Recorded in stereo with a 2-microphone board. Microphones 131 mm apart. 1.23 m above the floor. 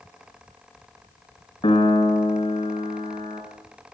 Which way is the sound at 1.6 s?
45° left (ahead or behind).